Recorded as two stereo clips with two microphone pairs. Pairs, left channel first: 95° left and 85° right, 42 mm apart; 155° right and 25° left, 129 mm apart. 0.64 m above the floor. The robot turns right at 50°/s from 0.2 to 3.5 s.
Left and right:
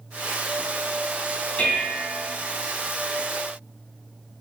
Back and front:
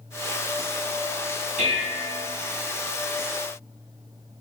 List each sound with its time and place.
1.6 s dishes clattering: 35° left, 3 m; by 2.2 s 65° left, 3 m